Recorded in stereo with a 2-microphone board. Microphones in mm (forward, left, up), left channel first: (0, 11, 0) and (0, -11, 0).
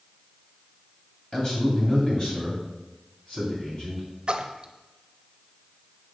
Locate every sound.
1.3 s a man speaking: 30° left (ahead or behind), 2.5 m; by 4.1 s 40° left (ahead or behind), 3.5 m
4.3 s a splash: 45° right (ahead or behind), 0.6 m